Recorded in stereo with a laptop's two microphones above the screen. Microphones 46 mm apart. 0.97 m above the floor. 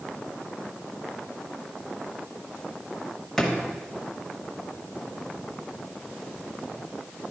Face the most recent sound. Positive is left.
turn(degrees=5)  # may be behind; listen again after turning